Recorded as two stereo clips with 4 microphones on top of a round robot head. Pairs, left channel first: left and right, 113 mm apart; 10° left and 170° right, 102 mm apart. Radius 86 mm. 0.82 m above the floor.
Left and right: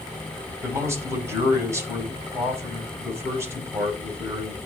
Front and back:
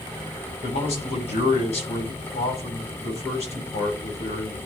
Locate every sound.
0.6 s a man speaking: 25° right, 4 m